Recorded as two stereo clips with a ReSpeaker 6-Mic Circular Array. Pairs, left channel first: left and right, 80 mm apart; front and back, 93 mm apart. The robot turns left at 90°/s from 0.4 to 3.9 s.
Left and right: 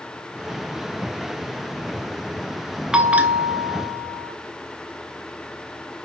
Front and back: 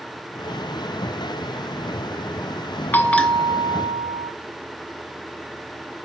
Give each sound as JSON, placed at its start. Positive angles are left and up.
{"t": 2.9, "sound": "a bell", "azimuth_deg": -25, "distance_m": 0.6}